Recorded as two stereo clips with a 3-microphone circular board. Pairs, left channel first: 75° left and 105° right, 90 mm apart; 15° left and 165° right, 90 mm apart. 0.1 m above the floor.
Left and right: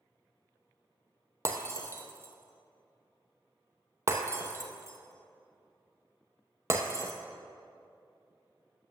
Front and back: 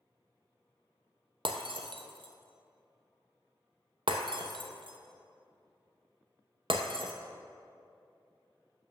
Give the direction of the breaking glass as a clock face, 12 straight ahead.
5 o'clock.